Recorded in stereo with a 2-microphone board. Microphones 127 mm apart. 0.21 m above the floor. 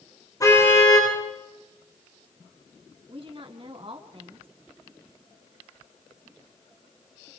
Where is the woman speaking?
45° right (ahead or behind), 2.5 m.